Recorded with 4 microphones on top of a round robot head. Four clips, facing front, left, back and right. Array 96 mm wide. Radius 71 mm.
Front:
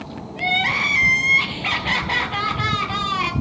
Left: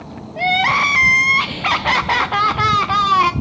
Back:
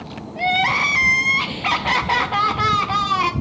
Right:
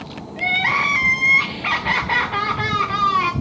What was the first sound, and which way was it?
Crying, 110° left.